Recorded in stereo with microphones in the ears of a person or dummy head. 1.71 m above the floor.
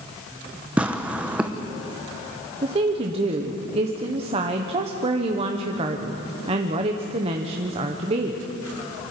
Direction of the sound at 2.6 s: 35° right (ahead or behind).